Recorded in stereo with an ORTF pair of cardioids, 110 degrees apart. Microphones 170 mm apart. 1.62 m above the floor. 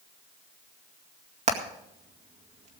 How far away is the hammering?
About 2.0 m.